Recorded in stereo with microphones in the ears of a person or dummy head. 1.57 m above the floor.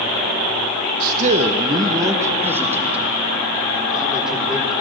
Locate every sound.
1.0 s a man speaking: 45° right (ahead or behind), 0.8 m; by 4.7 s centre (ahead or behind), 3.5 m